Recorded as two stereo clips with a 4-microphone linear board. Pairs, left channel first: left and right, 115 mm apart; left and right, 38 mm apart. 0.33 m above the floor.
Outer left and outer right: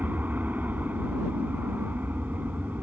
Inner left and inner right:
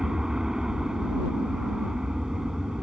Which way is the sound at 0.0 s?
15° right (ahead or behind).